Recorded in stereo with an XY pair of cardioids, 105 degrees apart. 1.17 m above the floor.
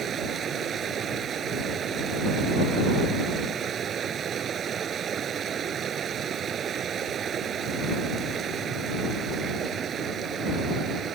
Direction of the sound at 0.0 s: 55° right.